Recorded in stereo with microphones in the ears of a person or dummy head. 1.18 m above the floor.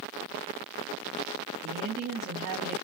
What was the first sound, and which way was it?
A woman speaking, 50° right (ahead or behind).